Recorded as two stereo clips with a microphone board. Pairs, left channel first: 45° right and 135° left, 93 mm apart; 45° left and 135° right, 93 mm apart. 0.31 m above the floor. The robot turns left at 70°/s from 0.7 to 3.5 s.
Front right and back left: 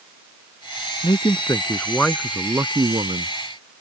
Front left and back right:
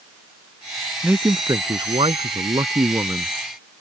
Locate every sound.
1.0 s a man speaking: 60° right; by 3.4 s 140° left